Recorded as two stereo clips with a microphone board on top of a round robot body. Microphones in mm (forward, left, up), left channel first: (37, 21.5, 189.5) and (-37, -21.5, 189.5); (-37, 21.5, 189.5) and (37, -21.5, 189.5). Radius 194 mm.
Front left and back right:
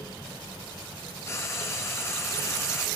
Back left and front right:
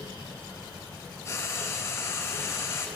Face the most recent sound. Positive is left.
turn(degrees=90)